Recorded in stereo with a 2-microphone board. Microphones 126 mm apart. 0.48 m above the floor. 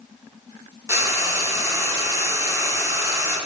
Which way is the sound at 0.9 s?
25° right (ahead or behind).